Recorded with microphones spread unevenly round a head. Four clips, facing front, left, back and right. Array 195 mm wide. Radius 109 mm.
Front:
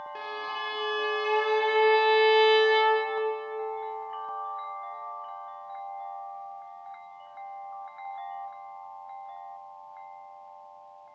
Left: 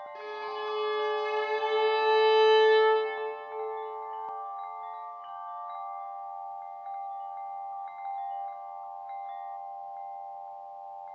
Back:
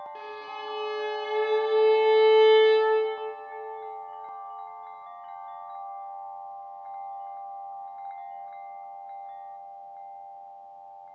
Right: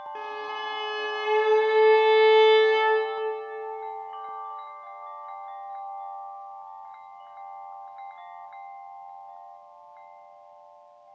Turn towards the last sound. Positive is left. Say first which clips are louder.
# right 1 dB, front 3 dB
turn(degrees=-80)